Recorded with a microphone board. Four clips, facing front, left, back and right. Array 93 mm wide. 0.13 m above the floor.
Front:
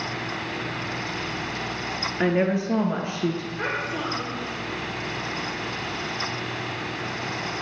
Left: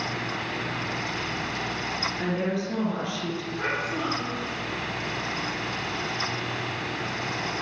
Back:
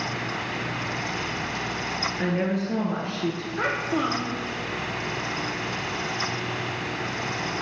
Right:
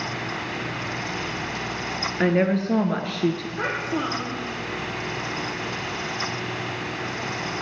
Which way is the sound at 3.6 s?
150° right.